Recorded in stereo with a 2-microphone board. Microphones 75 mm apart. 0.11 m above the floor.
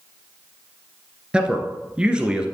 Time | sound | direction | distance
1.3 | a man speaking | 15° right (ahead or behind) | 1.5 m